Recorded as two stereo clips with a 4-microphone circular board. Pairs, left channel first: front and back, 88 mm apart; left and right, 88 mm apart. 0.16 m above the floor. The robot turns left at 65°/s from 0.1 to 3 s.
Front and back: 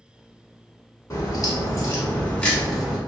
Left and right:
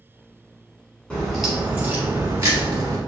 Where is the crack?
20° left, 1.1 m; by 3.0 s 105° right, 1.1 m.